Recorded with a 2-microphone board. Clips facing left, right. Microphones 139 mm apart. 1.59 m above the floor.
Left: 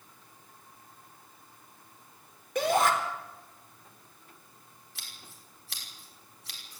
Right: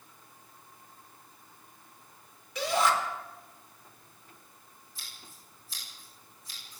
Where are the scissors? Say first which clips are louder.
Left 1 dB; 75° left (ahead or behind), 6 m.